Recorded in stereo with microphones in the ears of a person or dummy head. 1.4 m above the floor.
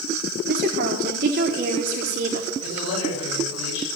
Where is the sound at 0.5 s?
45° right (ahead or behind), 1.4 m.